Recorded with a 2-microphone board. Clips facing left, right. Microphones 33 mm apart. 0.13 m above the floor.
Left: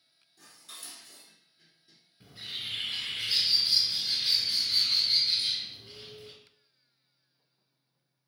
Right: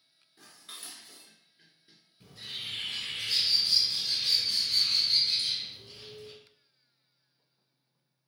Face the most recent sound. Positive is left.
turn(degrees=30)  # may be behind; listen again after turning